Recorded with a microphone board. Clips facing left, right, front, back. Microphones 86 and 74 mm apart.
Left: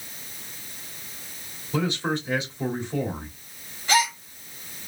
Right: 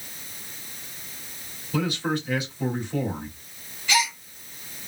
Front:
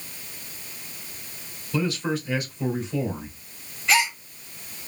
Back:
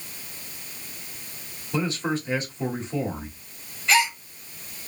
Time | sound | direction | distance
1.7 | a man speaking | 140° left | 1.7 m
3.9 | a gasp | 85° left | 0.8 m